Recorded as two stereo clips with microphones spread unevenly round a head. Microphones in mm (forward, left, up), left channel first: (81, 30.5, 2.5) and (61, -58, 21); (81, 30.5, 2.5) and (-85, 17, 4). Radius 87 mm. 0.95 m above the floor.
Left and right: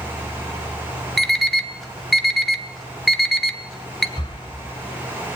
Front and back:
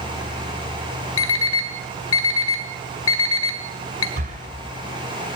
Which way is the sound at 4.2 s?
145° left.